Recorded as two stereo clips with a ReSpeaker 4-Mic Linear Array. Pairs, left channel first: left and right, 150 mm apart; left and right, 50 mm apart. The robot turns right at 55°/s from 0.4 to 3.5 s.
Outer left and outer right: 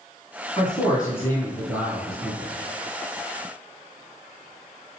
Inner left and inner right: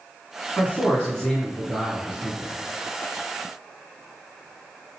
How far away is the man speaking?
About 1.9 m.